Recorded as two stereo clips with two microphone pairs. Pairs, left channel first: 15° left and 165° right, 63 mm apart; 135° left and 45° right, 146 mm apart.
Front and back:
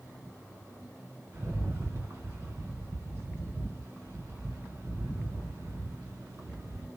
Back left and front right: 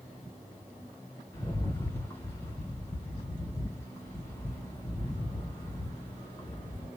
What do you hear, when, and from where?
1.3 s a rattle: 165° right, 1.7 m